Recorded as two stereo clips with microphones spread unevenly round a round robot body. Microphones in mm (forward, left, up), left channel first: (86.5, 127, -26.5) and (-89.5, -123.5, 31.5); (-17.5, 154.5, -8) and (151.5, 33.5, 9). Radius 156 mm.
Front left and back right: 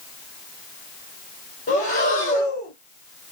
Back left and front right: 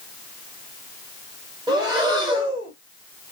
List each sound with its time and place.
1.7 s breathing: 25° left, 1.6 m